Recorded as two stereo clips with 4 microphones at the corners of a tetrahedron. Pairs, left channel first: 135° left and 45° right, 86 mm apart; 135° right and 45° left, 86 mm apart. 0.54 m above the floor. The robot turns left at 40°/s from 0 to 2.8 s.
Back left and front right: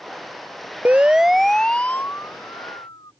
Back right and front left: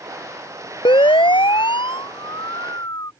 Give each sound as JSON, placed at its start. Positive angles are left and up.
{"t": 0.8, "sound": "a siren", "azimuth_deg": -115}